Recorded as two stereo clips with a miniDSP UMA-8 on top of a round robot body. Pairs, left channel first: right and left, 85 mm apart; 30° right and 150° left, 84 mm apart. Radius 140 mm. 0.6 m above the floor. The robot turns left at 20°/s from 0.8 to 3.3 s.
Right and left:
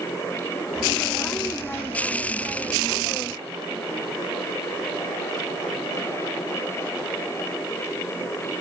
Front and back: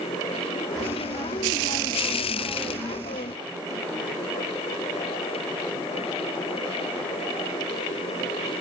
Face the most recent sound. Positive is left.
No sound to turn to.